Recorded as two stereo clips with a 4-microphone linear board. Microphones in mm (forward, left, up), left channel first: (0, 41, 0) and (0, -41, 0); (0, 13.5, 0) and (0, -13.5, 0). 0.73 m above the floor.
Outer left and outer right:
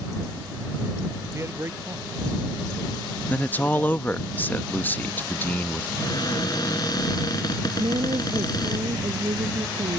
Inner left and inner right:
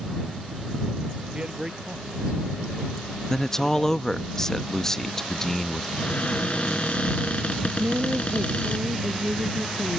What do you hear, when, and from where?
1.3 s a man speaking: 35° right (ahead or behind)
3.3 s a man speaking: 20° left (ahead or behind)
6.0 s a cupboard door: 55° left (ahead or behind)
7.8 s a woman speaking: 80° right